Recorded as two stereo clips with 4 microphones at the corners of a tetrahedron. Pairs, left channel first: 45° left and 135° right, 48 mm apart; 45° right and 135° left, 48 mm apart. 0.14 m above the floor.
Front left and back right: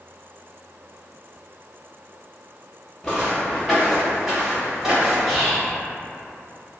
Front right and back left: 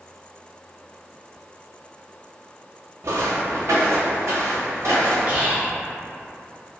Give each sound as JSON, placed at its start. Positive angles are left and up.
{"t": 3.0, "sound": "footsteps", "azimuth_deg": 125, "distance_m": 0.7}
{"t": 5.3, "sound": "whispering", "azimuth_deg": 145, "distance_m": 1.3}